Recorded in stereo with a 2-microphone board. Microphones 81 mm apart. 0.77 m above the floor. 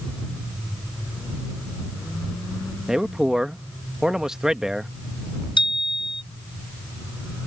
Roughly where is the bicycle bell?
Left.